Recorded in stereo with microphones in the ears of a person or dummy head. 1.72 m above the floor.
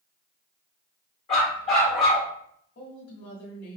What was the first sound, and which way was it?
A dog barking, 15° left (ahead or behind).